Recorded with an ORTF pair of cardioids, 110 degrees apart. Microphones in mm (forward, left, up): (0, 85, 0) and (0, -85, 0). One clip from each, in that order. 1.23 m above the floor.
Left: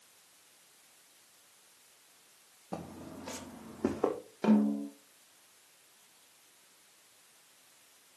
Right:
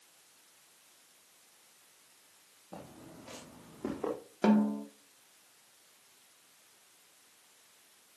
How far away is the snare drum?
About 3.5 m.